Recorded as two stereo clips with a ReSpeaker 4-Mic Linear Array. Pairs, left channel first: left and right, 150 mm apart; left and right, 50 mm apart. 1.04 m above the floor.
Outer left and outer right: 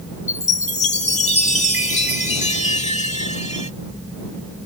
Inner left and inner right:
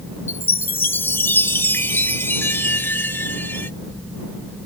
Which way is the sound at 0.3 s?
50° left (ahead or behind).